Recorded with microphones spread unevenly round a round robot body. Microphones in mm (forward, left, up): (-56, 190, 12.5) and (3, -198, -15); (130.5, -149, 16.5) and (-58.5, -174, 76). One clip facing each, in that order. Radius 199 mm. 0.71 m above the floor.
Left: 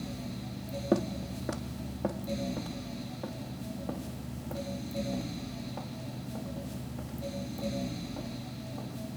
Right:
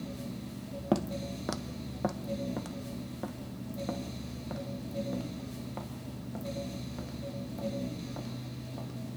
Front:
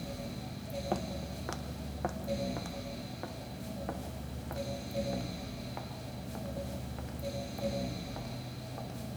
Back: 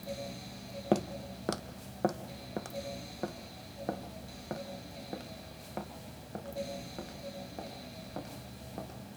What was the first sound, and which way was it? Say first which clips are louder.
Footsteps: left 1 dB, back 8 dB; 150° right.